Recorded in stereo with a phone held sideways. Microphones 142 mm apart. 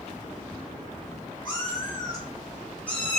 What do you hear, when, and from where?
1.4 s a cat meowing: 35° left (ahead or behind), 0.9 m; by 3.2 s 5° left (ahead or behind), 0.9 m